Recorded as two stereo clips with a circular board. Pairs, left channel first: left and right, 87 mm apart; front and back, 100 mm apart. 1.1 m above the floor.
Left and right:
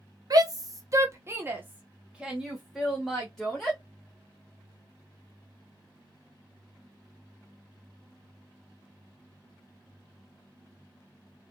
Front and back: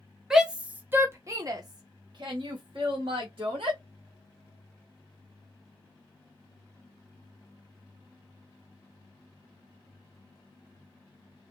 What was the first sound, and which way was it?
A shout, 95° right.